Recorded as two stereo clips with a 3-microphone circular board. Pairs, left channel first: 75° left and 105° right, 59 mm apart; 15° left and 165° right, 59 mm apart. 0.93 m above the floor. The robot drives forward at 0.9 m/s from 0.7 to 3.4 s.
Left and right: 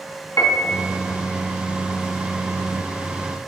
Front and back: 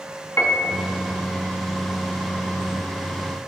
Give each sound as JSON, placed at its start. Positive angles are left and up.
{"t": 0.4, "sound": "a piano", "azimuth_deg": 60, "distance_m": 1.1}